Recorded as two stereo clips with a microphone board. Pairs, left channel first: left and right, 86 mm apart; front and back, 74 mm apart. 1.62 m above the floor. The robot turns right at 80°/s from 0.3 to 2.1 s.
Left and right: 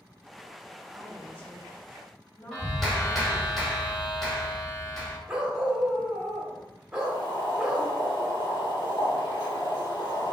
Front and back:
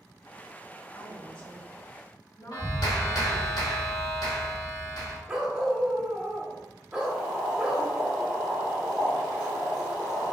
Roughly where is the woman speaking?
Ahead right.